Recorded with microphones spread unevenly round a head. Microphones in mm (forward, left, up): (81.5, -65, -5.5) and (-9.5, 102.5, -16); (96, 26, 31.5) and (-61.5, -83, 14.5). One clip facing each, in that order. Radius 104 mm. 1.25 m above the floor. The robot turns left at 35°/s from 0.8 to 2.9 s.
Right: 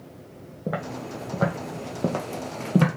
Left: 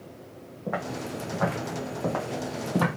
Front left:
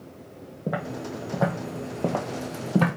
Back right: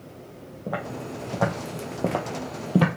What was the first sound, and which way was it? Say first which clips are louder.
Footsteps: right 1 dB, front left 1 dB; 25° right.